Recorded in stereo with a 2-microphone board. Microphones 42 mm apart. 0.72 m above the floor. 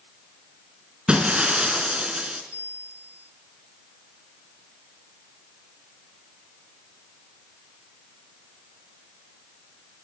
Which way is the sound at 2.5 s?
70° left (ahead or behind).